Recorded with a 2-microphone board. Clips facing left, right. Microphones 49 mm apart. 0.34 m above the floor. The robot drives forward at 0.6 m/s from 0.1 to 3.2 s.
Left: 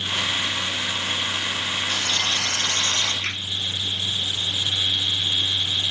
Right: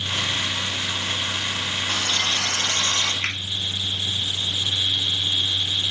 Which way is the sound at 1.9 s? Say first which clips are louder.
Right 2 dB; 55° right (ahead or behind).